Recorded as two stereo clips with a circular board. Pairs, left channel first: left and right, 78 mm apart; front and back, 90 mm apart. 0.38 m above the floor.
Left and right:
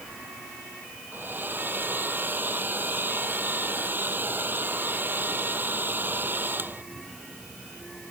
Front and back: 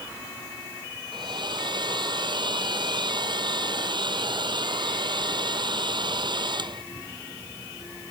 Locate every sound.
1.1 s a hair dryer: 155° right